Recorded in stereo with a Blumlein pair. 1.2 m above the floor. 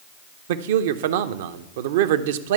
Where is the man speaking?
55° right, 0.6 m.